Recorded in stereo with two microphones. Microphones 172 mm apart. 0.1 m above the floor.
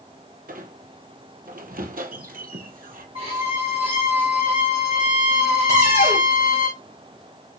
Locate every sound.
0.5 s a squeak: 65° right (ahead or behind), 0.8 m
3.1 s a violin: 35° right (ahead or behind), 2.5 m
5.7 s a cupboard door: 45° right (ahead or behind), 2.0 m